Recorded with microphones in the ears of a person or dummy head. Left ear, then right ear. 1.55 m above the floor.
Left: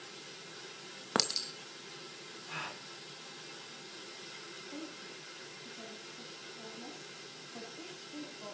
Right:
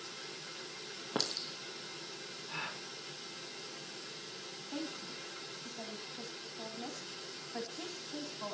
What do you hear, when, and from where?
1.1 s a clink: 65° left (ahead or behind), 1.3 m
2.5 s a gasp: 65° left (ahead or behind), 5 m
4.7 s a woman speaking: 55° right (ahead or behind), 2.5 m